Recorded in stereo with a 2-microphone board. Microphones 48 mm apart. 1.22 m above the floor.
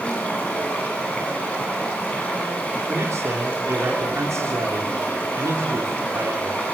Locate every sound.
0.0 s running water: 25° left (ahead or behind), 9.5 m
2.9 s a man speaking: 75° right (ahead or behind), 3 m